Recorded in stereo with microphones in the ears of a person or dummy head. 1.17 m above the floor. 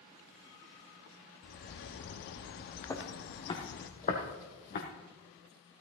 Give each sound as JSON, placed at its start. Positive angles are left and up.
{"t": 1.4, "sound": "a bird", "side_deg": 50, "distance_m": 0.8}
{"t": 2.9, "sound": "footsteps", "side_deg": 15, "distance_m": 1.6}